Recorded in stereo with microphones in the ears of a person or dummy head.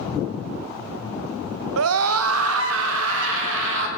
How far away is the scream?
About 0.9 m.